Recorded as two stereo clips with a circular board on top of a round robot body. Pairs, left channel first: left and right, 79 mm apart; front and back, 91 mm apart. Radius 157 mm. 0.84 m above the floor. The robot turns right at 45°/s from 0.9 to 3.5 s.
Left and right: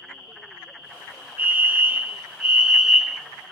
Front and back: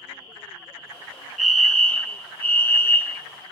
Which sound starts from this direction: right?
A fire alarm, at 1.4 s.